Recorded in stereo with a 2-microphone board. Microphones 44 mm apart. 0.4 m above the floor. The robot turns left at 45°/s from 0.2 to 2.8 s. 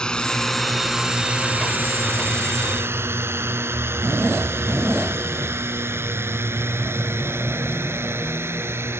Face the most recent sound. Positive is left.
turn(degrees=-80)